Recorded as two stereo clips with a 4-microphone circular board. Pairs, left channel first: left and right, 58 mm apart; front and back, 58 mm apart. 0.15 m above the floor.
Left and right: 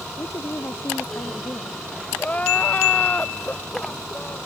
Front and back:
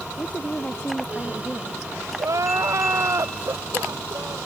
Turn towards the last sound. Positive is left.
turn(degrees=155)